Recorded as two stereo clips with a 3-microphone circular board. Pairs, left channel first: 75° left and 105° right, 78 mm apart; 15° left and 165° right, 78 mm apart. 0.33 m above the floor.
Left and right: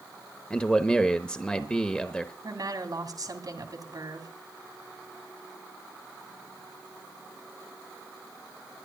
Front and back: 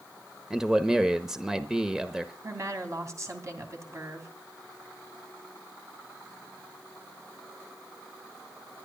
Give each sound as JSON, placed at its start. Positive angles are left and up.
{"t": 0.5, "sound": "a man speaking", "azimuth_deg": 125, "distance_m": 0.9}
{"t": 2.4, "sound": "a woman speaking", "azimuth_deg": -125, "distance_m": 2.5}